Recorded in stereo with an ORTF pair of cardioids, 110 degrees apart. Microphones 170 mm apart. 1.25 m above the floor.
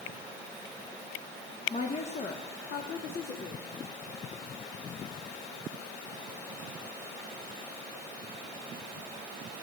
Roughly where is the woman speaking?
Ahead left.